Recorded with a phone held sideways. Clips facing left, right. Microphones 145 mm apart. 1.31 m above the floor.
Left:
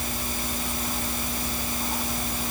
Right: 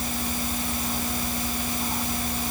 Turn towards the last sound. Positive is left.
No sound to turn to.